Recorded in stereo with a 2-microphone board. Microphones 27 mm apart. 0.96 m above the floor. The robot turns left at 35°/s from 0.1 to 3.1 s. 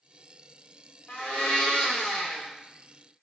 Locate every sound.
1.1 s a blender: 110° left, 0.8 m; by 2.5 s 60° left, 0.8 m